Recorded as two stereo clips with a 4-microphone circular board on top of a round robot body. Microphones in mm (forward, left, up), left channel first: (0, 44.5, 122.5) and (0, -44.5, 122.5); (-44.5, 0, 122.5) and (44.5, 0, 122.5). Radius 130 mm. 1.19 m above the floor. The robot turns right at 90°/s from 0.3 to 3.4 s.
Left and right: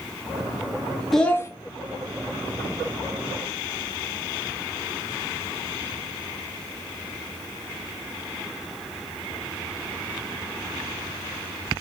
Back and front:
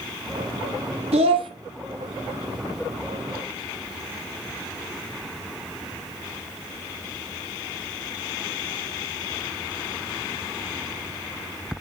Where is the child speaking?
Straight ahead, 0.9 m; by 1.5 s 35° left, 0.9 m.